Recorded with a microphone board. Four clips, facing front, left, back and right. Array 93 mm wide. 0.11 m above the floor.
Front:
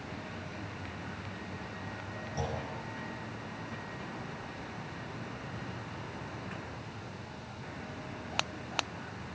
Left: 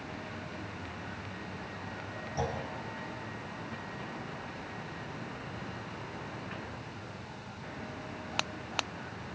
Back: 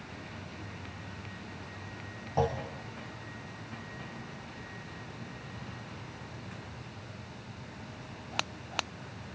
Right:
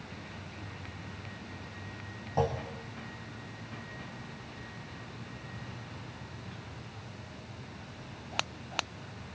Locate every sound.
2.4 s a clunk: 135° right, 3 m